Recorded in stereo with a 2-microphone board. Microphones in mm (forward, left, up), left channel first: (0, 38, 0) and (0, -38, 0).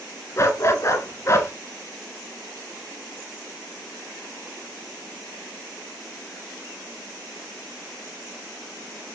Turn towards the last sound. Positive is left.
turn(degrees=40)  # may be behind; listen again after turning